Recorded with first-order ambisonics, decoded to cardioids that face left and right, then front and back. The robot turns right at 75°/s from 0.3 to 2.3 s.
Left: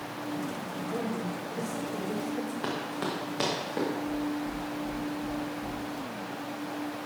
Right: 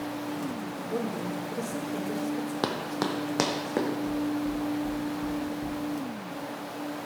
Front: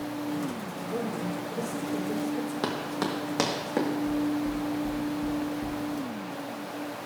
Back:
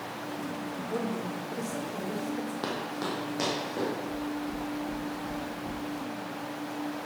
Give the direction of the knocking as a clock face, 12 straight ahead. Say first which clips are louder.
Right 2 dB, front 5 dB; 1 o'clock.